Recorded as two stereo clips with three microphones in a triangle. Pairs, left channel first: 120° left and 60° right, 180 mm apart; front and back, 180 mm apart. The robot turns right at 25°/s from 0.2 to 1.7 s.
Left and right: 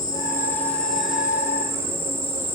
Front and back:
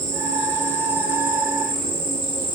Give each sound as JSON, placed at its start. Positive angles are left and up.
{"t": 0.0, "sound": "an insect", "azimuth_deg": -170, "distance_m": 5.0}